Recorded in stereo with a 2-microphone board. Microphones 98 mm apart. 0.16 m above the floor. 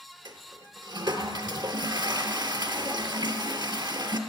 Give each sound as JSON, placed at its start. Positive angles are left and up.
{"t": 0.2, "sound": "a toilet flushing", "side_deg": -45, "distance_m": 0.7}